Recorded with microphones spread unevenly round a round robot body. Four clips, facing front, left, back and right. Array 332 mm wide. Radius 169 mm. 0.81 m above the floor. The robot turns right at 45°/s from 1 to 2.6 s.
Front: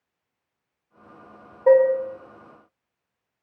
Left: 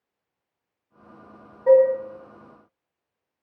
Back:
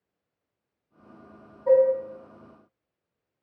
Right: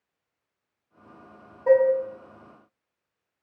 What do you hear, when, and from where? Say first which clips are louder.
1.7 s dishes clattering: left 3 dB, front 3 dB; 5° right, 1.3 m; by 1.9 s 5° left, 1.3 m